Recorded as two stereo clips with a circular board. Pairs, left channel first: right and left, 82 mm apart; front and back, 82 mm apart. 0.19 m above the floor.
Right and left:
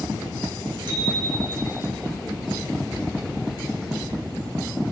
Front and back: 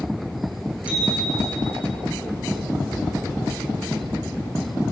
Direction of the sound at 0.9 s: 110° left.